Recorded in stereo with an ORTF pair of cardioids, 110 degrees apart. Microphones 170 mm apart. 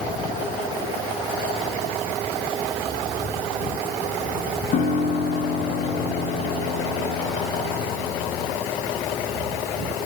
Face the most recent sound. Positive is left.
turn(degrees=60)